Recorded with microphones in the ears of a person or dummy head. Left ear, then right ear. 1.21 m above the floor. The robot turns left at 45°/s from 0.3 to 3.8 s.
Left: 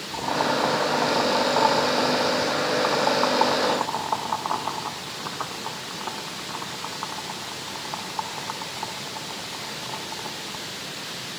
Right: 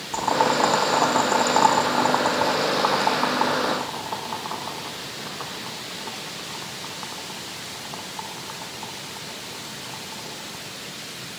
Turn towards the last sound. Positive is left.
turn(degrees=20)  # may be behind; listen again after turning